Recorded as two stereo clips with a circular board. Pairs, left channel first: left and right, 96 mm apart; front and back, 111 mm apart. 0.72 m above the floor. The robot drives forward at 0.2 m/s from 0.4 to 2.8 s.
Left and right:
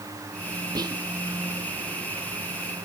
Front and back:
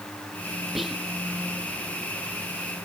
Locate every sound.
0.8 s whispering: 90° right, 0.5 m; by 1.0 s 100° right, 0.5 m